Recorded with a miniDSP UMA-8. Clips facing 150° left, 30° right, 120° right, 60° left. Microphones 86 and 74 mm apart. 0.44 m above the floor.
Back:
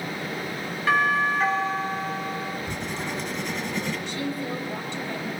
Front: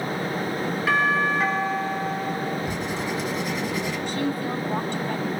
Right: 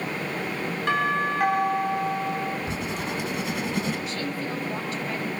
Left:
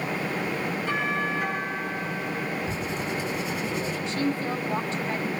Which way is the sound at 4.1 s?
5° right.